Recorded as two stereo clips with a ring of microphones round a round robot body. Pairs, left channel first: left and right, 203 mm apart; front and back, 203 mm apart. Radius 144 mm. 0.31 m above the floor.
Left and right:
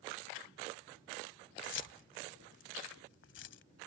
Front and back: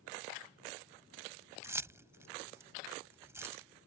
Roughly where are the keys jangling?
Left.